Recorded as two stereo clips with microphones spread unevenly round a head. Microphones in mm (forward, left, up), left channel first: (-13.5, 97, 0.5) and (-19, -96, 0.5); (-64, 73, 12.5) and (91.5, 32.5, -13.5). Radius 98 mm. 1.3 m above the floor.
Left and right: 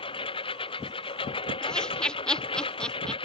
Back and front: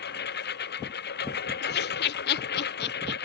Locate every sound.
0.0 s a lawn mower: 150° left
1.6 s laughter: 175° left